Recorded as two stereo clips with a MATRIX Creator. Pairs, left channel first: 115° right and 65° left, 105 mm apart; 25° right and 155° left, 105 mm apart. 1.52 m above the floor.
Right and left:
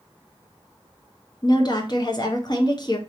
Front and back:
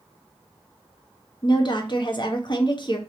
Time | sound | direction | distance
1.4 | a woman speaking | 65° right | 0.8 m